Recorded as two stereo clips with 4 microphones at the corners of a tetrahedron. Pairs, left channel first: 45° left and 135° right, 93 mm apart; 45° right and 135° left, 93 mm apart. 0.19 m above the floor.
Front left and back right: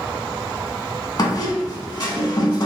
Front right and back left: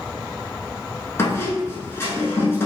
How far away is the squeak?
About 0.6 m.